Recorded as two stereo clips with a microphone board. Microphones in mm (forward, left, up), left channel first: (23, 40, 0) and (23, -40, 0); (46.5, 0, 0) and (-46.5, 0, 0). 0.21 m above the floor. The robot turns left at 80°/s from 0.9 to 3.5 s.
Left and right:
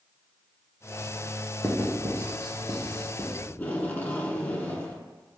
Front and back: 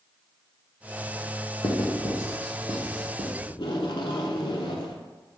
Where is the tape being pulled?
25° left, 0.7 m.